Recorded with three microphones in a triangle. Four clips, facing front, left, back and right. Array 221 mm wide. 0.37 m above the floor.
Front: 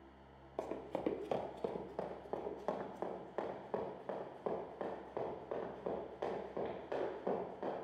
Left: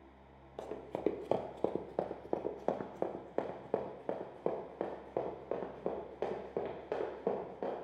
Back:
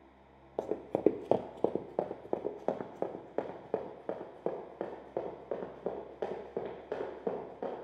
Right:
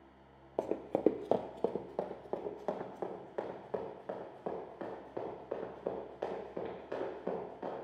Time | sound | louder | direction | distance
0.6 | running footsteps | right 6 dB, back 10 dB | 125° right | 0.5 m